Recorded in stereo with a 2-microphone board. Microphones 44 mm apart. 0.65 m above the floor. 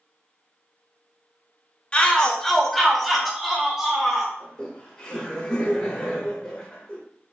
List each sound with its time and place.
1.9 s a shout: 25° left (ahead or behind), 0.6 m; by 4.3 s 10° right (ahead or behind), 1.4 m
4.4 s laughter: 15° left (ahead or behind), 1.3 m